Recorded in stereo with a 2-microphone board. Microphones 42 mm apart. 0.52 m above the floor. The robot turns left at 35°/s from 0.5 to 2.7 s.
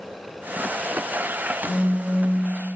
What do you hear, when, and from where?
1.6 s a phone buzzing: 10° right (ahead or behind), 0.5 m; by 2.5 s 35° right (ahead or behind), 0.5 m